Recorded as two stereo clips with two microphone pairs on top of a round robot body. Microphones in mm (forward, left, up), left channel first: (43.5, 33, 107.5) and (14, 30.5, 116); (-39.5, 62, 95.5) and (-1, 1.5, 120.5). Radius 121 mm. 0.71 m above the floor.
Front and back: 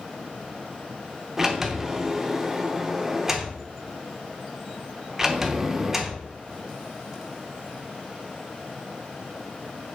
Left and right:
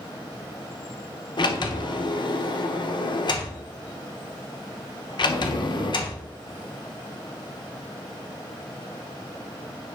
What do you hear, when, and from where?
1.4 s a sliding door: 110° left, 0.8 m